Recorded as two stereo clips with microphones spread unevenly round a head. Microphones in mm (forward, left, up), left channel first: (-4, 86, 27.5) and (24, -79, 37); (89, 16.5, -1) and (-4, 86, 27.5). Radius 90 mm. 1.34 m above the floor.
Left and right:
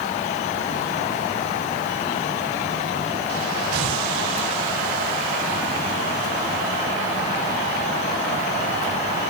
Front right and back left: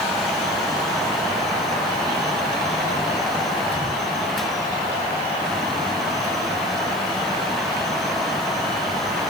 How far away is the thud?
I don't hear a thud.